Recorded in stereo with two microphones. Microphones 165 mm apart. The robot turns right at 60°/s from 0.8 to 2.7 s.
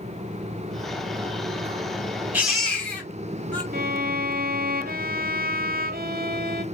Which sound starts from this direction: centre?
A baby crying, at 2.3 s.